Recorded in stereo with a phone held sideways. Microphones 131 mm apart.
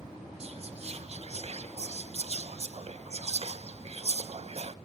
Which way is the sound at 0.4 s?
50° right (ahead or behind).